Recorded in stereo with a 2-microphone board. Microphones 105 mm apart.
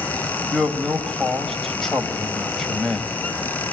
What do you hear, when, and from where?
0.5 s a man speaking: 5° left (ahead or behind), 2 m